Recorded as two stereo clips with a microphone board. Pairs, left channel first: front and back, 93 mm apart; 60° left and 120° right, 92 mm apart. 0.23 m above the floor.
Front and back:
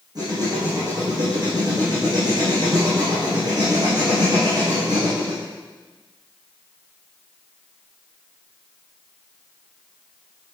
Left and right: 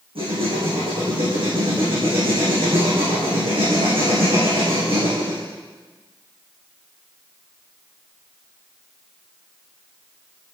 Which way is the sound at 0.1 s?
135° right.